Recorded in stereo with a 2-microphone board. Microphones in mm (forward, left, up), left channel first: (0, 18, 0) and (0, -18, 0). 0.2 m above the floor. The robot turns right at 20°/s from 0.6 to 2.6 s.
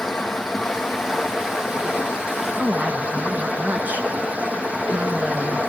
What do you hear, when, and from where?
0.0 s running water: straight behind, 3 m; by 5.7 s 140° right, 3 m
2.6 s a woman speaking: 45° right (ahead or behind), 2 m